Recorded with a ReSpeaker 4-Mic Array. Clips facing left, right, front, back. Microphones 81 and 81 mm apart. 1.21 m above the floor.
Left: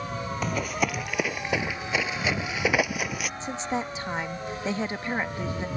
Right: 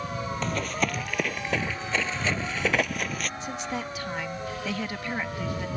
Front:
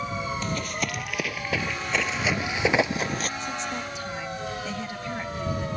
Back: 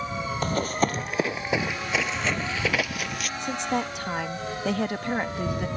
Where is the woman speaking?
155° left.